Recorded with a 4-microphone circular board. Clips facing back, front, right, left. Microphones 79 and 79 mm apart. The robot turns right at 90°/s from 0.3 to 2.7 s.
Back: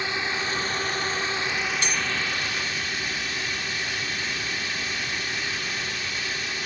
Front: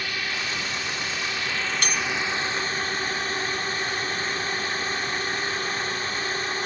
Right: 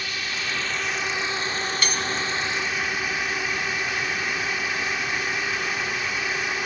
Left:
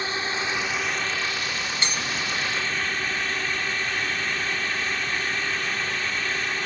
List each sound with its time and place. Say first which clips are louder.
0.0 s a drone: back 2 dB, left 3 dB; 130° left; by 6.7 s 15° right
1.8 s cutlery clinking: even, right 1 dB; 25° left; by 2.0 s 45° left